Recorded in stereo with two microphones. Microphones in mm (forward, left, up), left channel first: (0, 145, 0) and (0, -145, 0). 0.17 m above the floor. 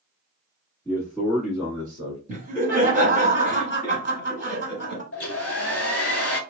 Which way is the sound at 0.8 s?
10° left (ahead or behind).